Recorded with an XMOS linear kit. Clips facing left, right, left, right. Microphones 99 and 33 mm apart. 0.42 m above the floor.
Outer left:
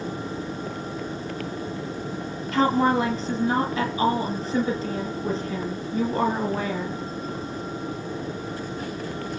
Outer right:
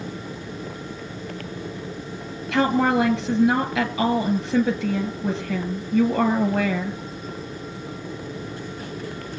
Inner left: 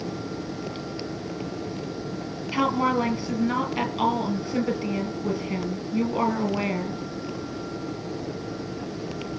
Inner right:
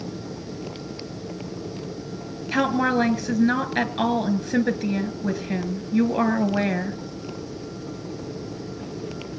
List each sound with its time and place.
2.5 s a woman speaking: 75° right (ahead or behind), 5.5 m